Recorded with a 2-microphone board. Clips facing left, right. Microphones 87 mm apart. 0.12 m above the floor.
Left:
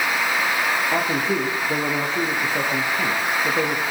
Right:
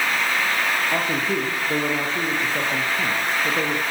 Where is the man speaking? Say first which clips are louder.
Left 1 dB; 5° left (ahead or behind), 3.5 m.